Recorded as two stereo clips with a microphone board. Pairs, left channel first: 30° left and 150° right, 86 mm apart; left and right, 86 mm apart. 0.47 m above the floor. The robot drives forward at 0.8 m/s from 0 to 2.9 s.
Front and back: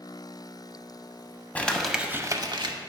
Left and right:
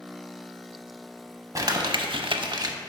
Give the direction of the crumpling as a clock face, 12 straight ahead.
1 o'clock.